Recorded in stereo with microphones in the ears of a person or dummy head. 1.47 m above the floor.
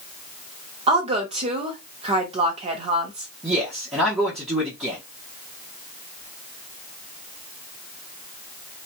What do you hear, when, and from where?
0.9 s a woman speaking: 30° right (ahead or behind), 1.1 m
3.4 s a man speaking: 5° right (ahead or behind), 0.8 m